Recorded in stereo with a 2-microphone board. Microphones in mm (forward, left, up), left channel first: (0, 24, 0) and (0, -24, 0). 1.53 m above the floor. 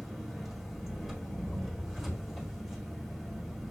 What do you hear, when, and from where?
0.0 s an engine running: 5° right (ahead or behind), 2.5 m